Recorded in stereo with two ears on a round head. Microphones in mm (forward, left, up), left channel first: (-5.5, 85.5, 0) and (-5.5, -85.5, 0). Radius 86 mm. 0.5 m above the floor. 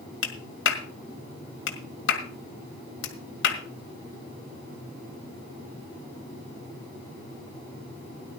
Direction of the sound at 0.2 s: 70° left (ahead or behind).